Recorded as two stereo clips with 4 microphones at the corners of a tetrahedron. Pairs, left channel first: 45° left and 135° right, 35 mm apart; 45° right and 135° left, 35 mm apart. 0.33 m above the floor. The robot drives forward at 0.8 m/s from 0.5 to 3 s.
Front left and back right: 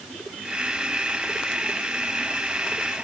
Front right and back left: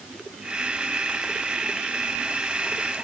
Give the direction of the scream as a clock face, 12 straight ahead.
I don't hear a scream.